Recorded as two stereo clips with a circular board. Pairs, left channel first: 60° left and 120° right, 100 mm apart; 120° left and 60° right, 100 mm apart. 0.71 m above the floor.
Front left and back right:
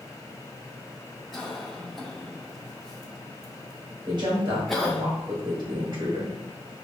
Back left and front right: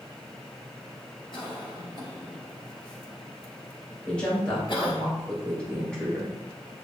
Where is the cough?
145° left, 1.5 m.